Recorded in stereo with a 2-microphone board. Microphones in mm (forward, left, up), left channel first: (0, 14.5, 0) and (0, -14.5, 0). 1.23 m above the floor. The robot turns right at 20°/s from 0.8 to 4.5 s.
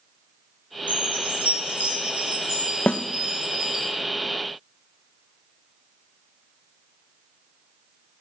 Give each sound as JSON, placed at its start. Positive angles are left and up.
{"t": 0.9, "sound": "a chime", "azimuth_deg": -75, "distance_m": 7.5}
{"t": 2.9, "sound": "a snare drum", "side_deg": 70, "distance_m": 0.6}